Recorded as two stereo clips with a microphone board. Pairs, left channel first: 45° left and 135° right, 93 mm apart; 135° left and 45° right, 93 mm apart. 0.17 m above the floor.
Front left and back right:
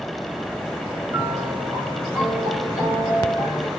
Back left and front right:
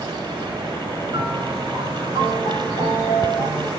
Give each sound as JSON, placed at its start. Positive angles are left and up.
{"t": 1.1, "sound": "a piano", "azimuth_deg": -70, "distance_m": 1.9}